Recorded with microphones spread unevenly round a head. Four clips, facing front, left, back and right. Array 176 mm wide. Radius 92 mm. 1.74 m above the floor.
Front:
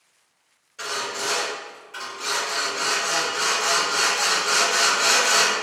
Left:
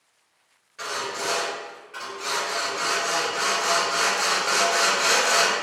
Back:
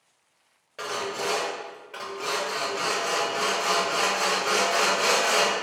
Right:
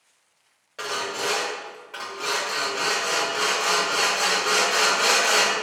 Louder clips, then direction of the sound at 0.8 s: Right 1 dB, even; 140° right.